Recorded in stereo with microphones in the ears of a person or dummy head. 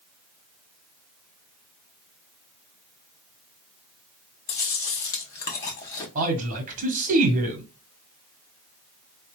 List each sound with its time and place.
4.5 s chewing: 20° left (ahead or behind), 0.8 m
6.2 s a man speaking: 45° right (ahead or behind), 1.2 m